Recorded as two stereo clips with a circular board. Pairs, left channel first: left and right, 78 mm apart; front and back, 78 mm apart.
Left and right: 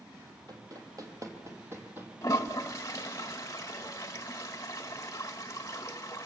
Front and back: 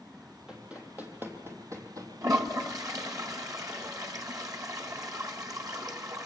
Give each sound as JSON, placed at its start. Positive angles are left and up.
{"t": 0.5, "sound": "running footsteps", "azimuth_deg": -100, "distance_m": 3.0}
{"t": 2.2, "sound": "a toilet flushing", "azimuth_deg": 140, "distance_m": 1.7}